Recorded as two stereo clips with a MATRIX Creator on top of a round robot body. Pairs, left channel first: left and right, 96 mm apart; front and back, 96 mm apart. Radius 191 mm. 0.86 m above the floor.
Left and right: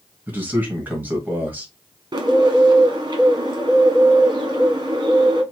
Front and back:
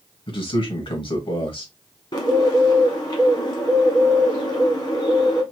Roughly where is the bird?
Ahead right.